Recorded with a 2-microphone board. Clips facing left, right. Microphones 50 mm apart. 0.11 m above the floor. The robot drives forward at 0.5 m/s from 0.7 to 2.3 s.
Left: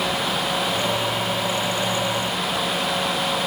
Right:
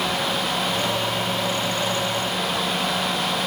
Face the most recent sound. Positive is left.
No sound to turn to.